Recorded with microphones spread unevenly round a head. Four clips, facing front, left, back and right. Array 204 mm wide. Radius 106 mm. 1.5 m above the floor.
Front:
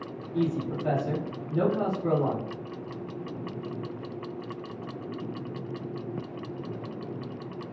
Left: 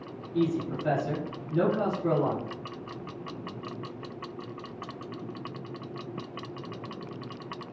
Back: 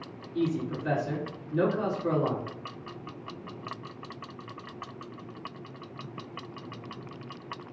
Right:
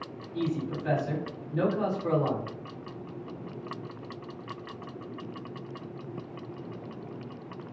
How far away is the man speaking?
About 2 m.